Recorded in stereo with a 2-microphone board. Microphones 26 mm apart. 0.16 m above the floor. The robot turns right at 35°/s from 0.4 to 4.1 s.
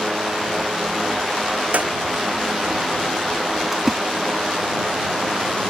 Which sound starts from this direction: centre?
A splash, at 3.7 s.